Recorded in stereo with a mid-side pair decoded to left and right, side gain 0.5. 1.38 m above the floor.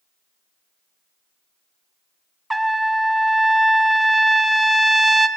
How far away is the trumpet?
About 0.5 m.